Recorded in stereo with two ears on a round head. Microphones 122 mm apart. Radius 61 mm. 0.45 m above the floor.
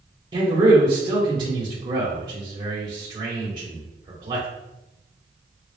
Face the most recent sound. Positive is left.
turn(degrees=-30)  # may be behind; listen again after turning